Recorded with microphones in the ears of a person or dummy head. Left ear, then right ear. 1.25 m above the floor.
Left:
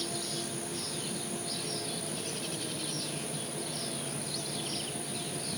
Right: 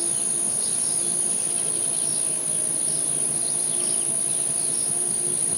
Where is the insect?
75° right (ahead or behind), 1.0 m.